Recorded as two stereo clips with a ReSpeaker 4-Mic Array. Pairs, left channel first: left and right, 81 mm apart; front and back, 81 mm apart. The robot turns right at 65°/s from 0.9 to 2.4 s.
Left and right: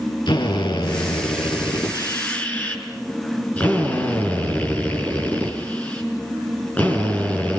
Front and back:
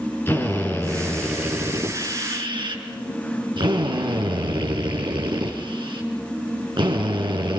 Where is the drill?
65° left, 6 m; by 7.6 s 160° left, 6 m.